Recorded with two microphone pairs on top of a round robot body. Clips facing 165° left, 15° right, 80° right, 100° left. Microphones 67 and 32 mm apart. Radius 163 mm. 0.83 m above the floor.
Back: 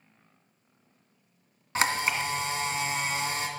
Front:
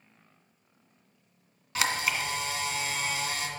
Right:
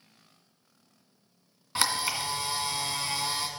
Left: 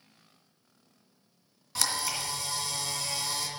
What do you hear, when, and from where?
1.8 s a camera shutter: 140° right, 1.9 m